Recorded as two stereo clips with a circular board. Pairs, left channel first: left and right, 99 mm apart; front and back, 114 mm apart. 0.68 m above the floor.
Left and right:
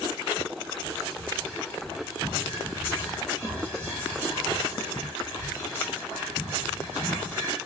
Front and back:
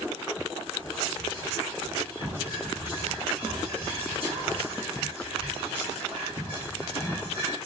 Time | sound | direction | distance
0.8 | whispering | 155° right | 1.6 m